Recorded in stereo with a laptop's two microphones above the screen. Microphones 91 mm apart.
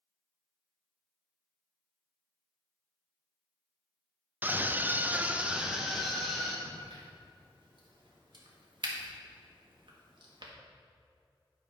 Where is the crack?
60° right (ahead or behind), 1.5 m.